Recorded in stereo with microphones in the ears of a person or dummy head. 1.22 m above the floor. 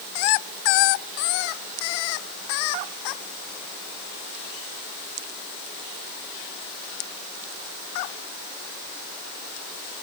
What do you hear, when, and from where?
Only background noise.